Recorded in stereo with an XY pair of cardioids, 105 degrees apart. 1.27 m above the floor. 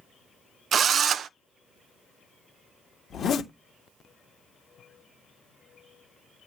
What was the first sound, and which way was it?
A drill, 55° right.